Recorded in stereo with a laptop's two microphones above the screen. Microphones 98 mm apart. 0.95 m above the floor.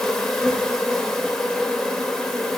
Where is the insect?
5° left (ahead or behind), 1.2 m.